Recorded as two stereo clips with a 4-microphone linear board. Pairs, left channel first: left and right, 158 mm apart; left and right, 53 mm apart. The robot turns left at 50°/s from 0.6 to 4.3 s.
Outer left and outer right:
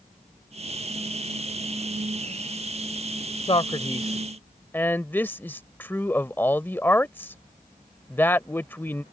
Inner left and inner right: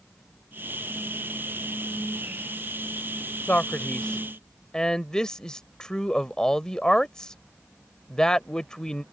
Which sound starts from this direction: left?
A man speaking, at 3.5 s.